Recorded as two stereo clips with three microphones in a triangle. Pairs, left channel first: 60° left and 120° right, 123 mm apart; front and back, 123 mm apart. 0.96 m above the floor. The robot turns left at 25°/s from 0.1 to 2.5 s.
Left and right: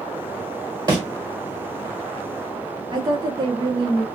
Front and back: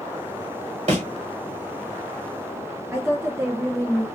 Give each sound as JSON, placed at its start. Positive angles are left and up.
{"t": 0.9, "sound": "a thud", "azimuth_deg": -175, "distance_m": 1.3}
{"t": 2.9, "sound": "a woman speaking", "azimuth_deg": -130, "distance_m": 0.5}